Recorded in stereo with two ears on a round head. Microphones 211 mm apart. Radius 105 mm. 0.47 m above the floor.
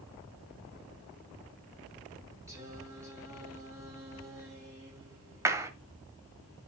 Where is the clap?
15° right (ahead or behind), 1.6 m.